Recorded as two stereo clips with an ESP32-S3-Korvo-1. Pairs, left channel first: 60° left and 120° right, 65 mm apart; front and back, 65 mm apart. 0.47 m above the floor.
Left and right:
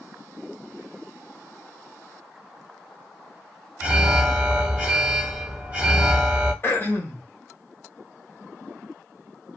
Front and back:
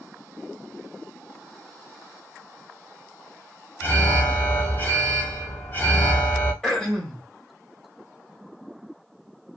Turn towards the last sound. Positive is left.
turn(degrees=75)